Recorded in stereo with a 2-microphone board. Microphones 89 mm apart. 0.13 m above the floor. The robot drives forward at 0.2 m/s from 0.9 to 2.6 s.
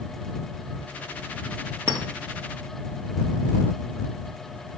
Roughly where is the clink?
Right.